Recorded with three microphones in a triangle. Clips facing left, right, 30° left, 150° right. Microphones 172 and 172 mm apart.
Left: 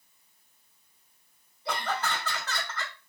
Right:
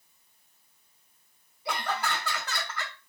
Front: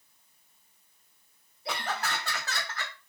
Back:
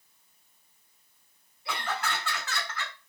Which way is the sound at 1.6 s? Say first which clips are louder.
Even, even; 15° right.